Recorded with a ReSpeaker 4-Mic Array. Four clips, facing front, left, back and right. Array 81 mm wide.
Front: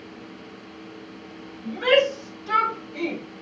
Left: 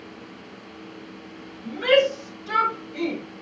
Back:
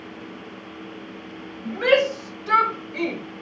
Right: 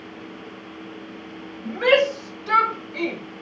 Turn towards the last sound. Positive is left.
turn(degrees=-155)